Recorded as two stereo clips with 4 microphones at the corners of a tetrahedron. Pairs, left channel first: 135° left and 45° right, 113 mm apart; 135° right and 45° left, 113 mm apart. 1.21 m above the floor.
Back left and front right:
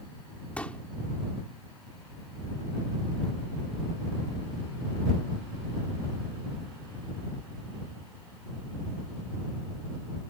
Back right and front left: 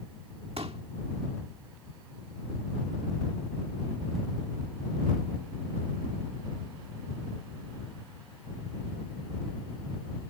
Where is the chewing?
I don't hear chewing.